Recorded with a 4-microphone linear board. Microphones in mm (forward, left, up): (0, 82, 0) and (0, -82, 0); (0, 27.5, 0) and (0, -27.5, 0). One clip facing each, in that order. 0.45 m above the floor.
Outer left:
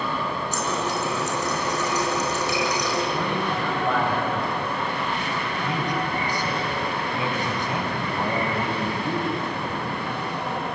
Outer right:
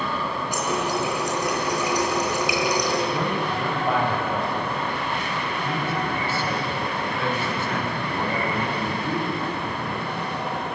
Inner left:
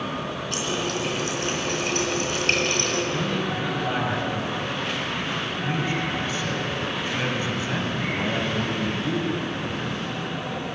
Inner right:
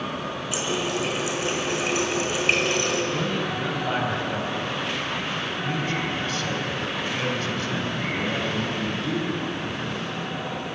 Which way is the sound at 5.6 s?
15° left (ahead or behind).